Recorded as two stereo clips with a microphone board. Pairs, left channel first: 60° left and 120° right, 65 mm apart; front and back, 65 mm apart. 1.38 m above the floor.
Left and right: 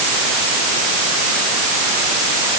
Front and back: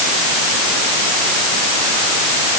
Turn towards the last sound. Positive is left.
No sound to turn to.